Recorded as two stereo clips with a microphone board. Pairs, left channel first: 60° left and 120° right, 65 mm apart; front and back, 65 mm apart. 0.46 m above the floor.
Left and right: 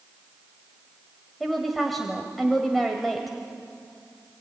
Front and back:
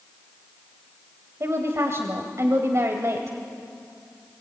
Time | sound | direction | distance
1.4 | a woman speaking | 150° left | 1.7 m